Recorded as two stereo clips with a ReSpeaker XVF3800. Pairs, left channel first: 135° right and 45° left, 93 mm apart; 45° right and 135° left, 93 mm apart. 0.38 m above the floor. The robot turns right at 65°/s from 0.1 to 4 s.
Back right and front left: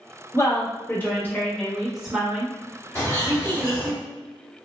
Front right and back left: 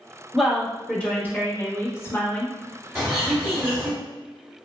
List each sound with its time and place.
0.3 s a woman speaking: 145° right, 0.9 m; by 4.0 s 90° left, 0.9 m
3.0 s a bird: 155° right, 1.2 m; by 3.9 s 95° right, 1.2 m